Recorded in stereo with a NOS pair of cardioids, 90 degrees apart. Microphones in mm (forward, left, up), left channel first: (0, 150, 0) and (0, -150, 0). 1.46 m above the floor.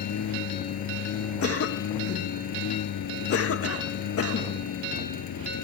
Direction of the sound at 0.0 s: 65° left.